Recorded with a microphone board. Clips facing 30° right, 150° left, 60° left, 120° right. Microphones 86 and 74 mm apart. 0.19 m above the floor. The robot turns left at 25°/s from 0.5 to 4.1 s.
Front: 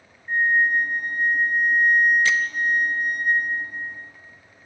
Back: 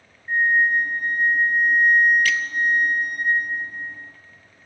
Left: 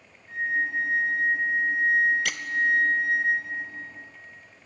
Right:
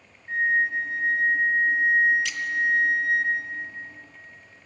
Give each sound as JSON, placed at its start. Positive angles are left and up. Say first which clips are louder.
{"t": 0.3, "sound": "a flute", "louder": "back 1 dB, right 4 dB", "azimuth_deg": -140, "distance_m": 3.5}
{"t": 2.2, "sound": "a squeak", "louder": "front 1 dB, right 1 dB", "azimuth_deg": 35, "distance_m": 0.5}